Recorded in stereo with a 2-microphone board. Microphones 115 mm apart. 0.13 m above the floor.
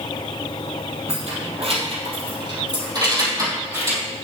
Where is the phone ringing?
I don't hear a phone ringing.